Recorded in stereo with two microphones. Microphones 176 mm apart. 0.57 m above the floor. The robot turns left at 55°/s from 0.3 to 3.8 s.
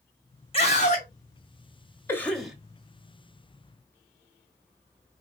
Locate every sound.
0.5 s a scream: 30° left (ahead or behind), 1.6 m; by 1.1 s 45° left (ahead or behind), 1.6 m
2.1 s a cough: 15° left (ahead or behind), 1.0 m; by 2.5 s 5° right (ahead or behind), 1.0 m